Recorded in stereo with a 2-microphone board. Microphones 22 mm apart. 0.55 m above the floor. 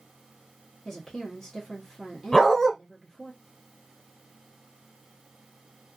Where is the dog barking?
20° left (ahead or behind), 1.4 m.